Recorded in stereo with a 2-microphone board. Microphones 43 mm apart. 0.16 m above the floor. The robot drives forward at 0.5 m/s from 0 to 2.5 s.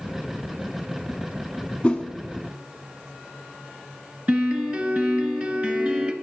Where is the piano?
40° right (ahead or behind), 1.0 m.